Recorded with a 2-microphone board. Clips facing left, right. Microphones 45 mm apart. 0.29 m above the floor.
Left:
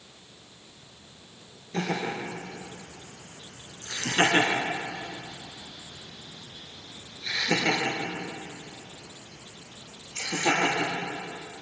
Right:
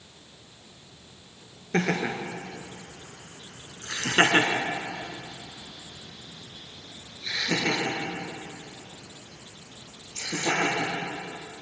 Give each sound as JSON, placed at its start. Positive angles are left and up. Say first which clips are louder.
{"t": 1.7, "sound": "laughter", "louder": "right 3 dB", "side_deg": -65, "distance_m": 4.0}